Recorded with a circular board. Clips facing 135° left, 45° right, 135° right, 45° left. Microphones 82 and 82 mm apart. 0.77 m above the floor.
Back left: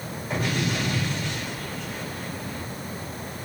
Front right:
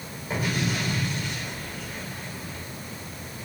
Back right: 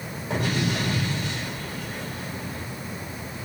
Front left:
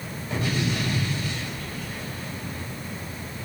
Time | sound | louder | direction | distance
0.3 | an explosion | back left 1 dB, back right 1 dB | 130° right | 3 m